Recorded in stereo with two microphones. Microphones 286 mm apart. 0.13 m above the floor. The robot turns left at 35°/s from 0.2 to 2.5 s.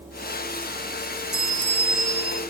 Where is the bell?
130° right, 1.1 m; by 2.4 s 165° right, 1.1 m.